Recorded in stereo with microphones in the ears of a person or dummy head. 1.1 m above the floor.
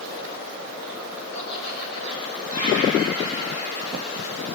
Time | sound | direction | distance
1.3 | laughter | 40° left (ahead or behind) | 5.5 m